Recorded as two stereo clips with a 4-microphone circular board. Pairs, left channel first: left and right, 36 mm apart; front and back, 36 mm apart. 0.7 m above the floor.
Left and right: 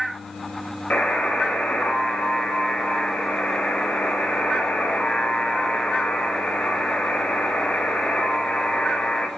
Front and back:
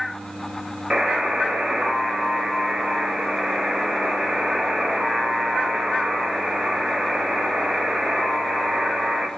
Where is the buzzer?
115° left, 0.7 m.